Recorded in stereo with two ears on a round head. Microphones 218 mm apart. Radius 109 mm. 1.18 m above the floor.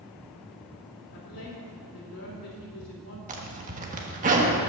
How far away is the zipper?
About 1.3 m.